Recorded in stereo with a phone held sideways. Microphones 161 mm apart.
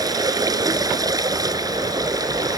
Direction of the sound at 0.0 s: 20° right (ahead or behind).